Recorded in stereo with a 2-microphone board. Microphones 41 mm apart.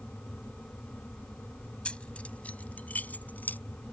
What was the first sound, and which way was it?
Keys jangling, 30° left (ahead or behind).